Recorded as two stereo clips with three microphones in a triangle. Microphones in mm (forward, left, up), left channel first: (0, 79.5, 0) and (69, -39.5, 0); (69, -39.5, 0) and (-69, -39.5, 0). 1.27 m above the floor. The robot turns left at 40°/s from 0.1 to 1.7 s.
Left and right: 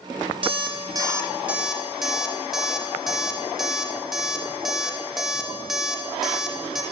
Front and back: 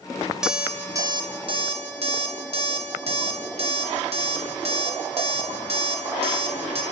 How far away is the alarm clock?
About 0.6 m.